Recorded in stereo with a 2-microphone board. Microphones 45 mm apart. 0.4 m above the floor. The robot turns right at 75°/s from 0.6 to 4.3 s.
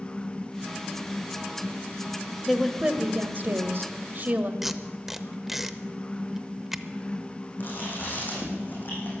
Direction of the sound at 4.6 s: 5° right (ahead or behind).